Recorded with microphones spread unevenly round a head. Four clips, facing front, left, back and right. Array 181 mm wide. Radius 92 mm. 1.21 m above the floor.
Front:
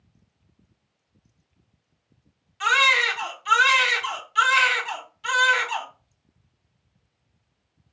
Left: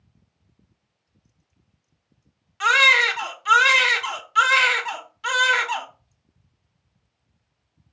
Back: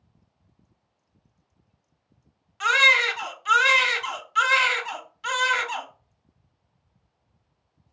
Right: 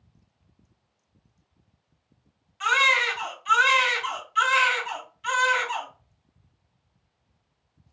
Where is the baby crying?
120° left, 0.8 m.